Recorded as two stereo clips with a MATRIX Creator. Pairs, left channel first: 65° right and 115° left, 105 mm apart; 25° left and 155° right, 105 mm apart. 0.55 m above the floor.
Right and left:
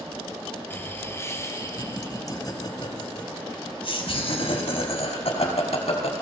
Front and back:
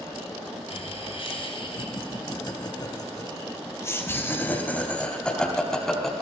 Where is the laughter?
5° left, 5 m; by 6.2 s 70° right, 5.5 m.